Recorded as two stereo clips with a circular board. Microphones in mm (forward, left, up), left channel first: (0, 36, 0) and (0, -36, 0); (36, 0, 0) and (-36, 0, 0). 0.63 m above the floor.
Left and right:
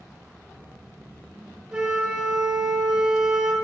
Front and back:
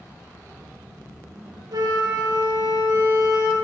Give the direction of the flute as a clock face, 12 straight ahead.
6 o'clock.